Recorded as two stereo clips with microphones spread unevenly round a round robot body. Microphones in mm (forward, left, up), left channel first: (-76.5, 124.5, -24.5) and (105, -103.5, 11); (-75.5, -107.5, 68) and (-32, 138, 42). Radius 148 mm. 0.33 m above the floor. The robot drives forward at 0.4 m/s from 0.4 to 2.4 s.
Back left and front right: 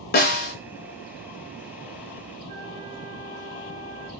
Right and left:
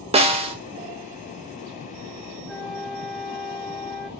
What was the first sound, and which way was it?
A snare drum, 120° left.